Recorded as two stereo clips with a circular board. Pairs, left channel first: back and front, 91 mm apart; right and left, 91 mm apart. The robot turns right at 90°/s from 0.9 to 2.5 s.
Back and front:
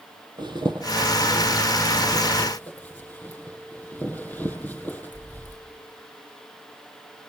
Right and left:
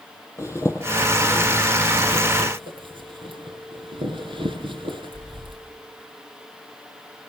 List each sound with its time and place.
0.4 s a zipper: 30° right, 7.5 m; by 5.6 s 110° left, 7.5 m